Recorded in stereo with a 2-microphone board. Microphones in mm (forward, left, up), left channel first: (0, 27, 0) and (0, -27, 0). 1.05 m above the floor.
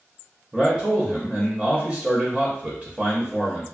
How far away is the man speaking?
About 0.6 m.